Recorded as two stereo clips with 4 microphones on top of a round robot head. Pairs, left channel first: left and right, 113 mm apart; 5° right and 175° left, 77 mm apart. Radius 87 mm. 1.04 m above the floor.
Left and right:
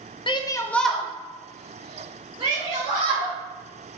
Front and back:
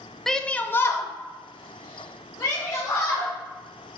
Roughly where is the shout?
Left.